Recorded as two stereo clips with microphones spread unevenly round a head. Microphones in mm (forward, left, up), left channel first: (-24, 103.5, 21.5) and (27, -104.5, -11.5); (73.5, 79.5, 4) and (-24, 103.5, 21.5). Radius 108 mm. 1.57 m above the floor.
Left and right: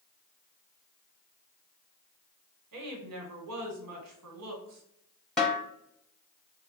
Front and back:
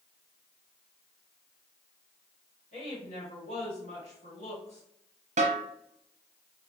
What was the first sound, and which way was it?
A woman speaking, 55° right.